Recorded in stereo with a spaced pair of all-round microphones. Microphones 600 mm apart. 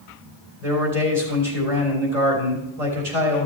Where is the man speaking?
90° right, 3.5 m.